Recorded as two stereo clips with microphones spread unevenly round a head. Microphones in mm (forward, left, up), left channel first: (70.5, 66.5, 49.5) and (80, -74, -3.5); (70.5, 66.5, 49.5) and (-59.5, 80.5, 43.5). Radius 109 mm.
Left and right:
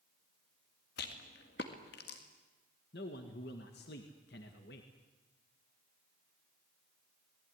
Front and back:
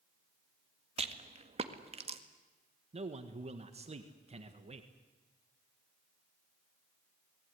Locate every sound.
1.0 s a rattle: 130° left, 1.9 m
2.9 s a man speaking: 135° left, 1.8 m